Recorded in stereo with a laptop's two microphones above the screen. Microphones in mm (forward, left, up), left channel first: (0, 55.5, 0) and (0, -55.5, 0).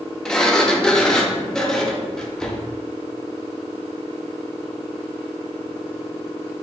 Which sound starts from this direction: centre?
A sliding door, at 0.2 s.